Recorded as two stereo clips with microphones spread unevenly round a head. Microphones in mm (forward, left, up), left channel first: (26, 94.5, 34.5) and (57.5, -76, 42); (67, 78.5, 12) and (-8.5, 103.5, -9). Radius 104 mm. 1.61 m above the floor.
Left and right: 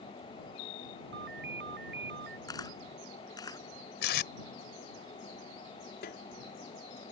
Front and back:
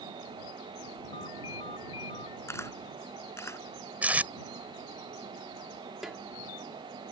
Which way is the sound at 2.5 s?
30° left.